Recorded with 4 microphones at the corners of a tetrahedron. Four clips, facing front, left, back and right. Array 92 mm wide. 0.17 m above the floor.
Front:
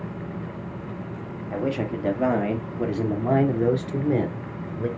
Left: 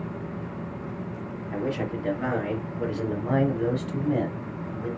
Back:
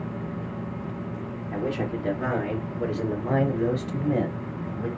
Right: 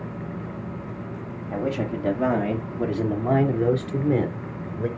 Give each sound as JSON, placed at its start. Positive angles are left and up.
{"t": 1.5, "sound": "a man speaking", "azimuth_deg": -30, "distance_m": 5.5}